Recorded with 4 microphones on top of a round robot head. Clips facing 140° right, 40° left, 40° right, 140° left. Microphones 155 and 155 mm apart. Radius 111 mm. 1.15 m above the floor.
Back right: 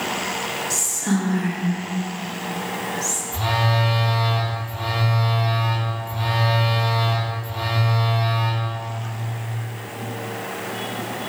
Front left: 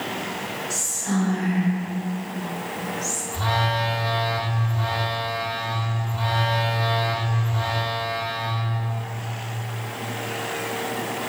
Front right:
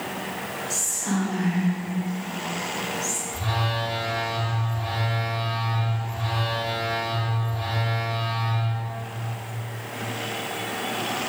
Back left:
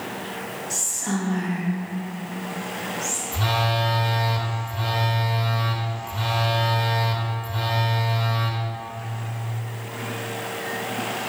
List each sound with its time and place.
0.7 s whispering: 125° right, 1.6 m
3.3 s a phone buzzing: 150° left, 0.7 m